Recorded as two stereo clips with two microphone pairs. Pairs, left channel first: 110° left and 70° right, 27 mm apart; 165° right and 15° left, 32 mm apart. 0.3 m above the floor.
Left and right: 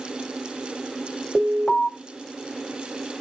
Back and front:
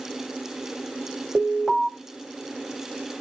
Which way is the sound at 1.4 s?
95° left.